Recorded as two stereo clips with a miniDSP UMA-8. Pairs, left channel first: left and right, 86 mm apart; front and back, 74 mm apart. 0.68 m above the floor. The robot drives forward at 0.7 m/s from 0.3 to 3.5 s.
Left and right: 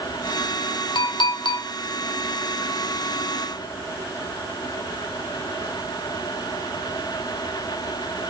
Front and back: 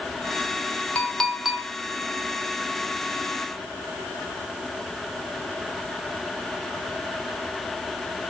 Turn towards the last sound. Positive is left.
turn(degrees=150)